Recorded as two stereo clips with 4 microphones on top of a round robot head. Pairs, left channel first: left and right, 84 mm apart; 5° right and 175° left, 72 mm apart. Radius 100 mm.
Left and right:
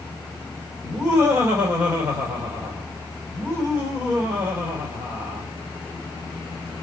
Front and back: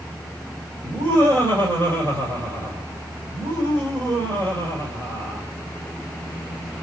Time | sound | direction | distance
0.8 | laughter | 145° right | 4.5 m